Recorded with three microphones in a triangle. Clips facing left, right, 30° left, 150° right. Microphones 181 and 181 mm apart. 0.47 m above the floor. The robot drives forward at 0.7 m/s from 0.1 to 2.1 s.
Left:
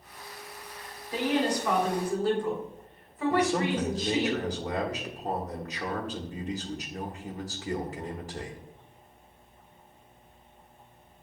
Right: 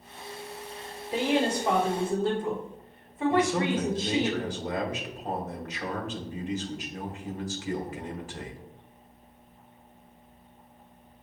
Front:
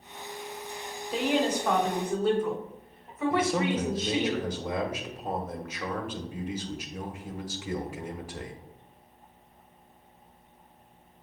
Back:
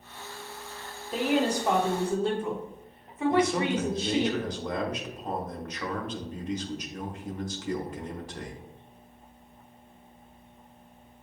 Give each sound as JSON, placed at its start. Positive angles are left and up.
{"t": 1.1, "sound": "a woman speaking", "azimuth_deg": -65, "distance_m": 1.2}
{"t": 3.3, "sound": "a man speaking", "azimuth_deg": 110, "distance_m": 1.1}